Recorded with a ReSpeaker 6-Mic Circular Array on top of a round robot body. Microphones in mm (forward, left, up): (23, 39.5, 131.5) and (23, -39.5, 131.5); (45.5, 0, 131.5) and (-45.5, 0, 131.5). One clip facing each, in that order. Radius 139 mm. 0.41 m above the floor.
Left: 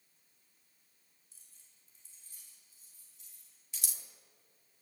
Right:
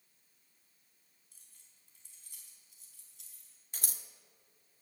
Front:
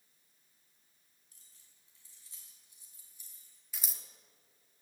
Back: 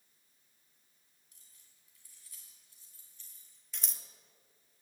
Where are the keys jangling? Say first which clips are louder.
Right 1 dB, even; 55° right, 4 m; by 3.6 s 85° right, 4 m.